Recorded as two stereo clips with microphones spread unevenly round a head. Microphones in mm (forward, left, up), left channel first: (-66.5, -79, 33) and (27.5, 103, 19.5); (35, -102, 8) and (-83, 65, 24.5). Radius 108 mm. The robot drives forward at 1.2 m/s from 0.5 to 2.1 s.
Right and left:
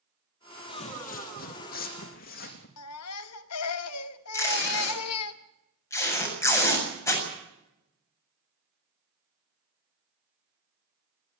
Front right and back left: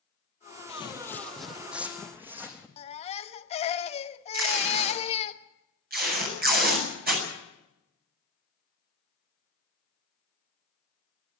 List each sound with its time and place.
0.7 s footsteps: 90° right, 1.2 m; by 2.7 s 155° right, 3.5 m
2.8 s a baby crying: 115° right, 1.0 m
4.3 s tape being pulled: 165° left, 7.5 m